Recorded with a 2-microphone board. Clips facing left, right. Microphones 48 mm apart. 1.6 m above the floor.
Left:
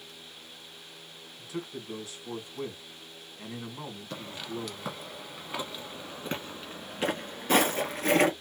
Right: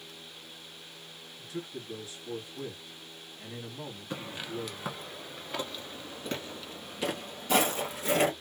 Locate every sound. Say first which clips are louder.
1.4 s a man speaking: left 2 dB; 75° left (ahead or behind), 2 m
4.1 s footsteps: right 1 dB; 20° right (ahead or behind), 1.7 m; by 8.3 s 50° left (ahead or behind), 2.5 m